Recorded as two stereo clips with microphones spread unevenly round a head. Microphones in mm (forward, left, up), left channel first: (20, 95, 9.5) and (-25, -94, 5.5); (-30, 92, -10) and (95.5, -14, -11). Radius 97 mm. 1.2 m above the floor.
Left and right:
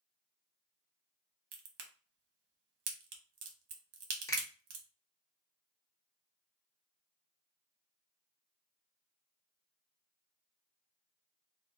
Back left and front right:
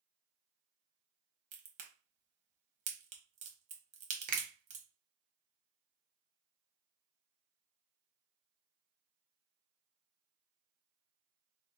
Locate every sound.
1.5 s a crack: 80° right, 0.6 m
4.3 s a finger snap: straight ahead, 0.7 m